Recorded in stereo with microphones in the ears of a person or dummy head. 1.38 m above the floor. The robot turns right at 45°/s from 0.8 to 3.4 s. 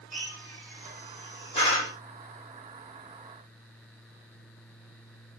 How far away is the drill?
About 2.5 m.